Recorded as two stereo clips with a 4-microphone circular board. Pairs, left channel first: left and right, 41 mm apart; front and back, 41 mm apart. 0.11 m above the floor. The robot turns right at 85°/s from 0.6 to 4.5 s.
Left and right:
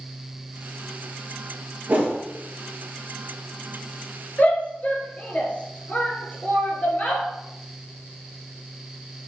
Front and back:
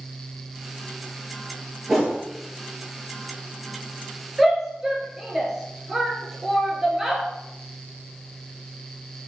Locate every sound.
1.9 s a whoosh: 105° right, 2.5 m; by 2.2 s 80° right, 2.5 m
4.4 s a shout: 95° left, 1.7 m; by 7.2 s 105° left, 1.7 m